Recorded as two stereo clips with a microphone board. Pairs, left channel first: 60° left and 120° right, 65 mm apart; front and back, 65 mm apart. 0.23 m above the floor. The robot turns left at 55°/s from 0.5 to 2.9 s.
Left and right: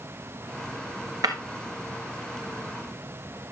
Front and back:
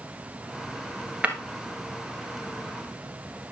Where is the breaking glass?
110° right, 1.4 m; by 1.4 s 115° right, 1.4 m.